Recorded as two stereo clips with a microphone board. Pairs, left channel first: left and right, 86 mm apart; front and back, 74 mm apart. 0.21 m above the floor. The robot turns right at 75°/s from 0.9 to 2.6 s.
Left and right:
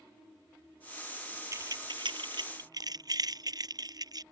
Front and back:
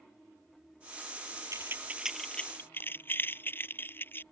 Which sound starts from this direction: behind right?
Keys jangling, at 1.5 s.